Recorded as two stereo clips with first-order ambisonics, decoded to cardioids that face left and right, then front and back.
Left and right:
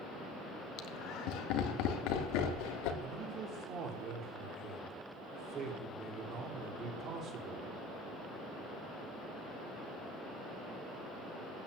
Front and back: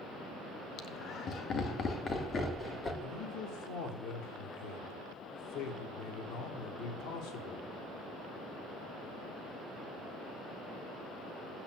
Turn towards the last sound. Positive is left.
turn(degrees=-35)